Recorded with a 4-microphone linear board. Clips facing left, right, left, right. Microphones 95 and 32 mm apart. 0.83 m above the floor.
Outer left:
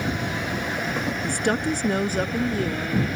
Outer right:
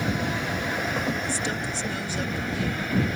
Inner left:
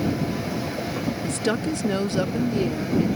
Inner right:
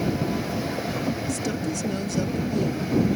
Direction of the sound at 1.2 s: 55° left (ahead or behind).